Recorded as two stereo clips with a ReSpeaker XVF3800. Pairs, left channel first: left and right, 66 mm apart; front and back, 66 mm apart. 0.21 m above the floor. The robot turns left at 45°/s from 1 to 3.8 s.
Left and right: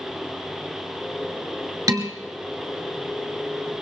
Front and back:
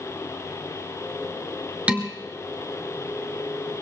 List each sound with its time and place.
1.9 s dishes clattering: 110° right, 1.8 m; by 2.1 s 120° right, 1.8 m